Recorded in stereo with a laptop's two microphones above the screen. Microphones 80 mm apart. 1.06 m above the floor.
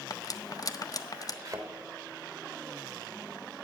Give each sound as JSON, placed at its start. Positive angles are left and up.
{"t": 0.1, "sound": "cutlery clinking", "side_deg": 45, "distance_m": 0.6}
{"t": 1.4, "sound": "a thud", "side_deg": -40, "distance_m": 1.5}